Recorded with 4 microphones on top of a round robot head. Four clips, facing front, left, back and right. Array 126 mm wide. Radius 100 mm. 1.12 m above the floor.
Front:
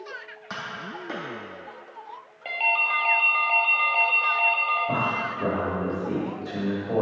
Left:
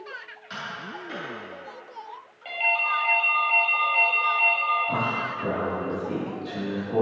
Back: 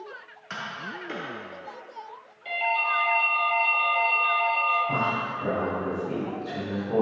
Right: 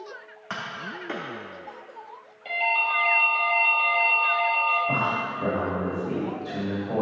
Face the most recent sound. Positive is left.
turn(degrees=-25)